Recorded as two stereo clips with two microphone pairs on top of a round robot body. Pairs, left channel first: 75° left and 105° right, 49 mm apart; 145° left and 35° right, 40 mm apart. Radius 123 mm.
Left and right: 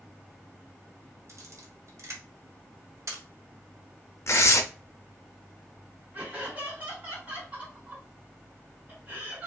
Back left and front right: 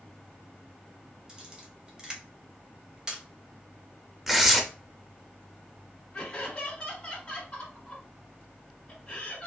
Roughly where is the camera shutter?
Right.